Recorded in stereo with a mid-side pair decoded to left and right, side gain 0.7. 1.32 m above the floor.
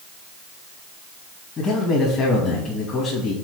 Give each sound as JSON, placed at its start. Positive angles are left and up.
{"t": 1.6, "sound": "a man speaking", "azimuth_deg": 30, "distance_m": 2.5}